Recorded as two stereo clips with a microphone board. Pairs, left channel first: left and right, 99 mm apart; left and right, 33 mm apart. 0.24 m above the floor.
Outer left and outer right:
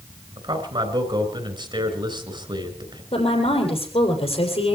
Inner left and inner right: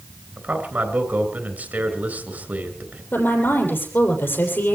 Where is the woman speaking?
80° left, 7 m.